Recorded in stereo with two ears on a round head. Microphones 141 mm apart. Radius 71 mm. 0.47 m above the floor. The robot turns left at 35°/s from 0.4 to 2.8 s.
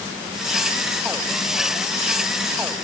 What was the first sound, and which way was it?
Only background noise.